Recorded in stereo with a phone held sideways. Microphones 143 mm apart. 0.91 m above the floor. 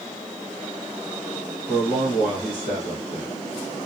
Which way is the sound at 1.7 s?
70° left (ahead or behind).